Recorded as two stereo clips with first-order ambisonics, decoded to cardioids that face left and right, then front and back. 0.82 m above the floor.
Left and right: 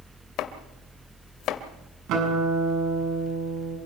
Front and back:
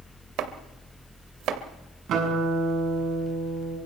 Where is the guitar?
130° right, 7.5 m.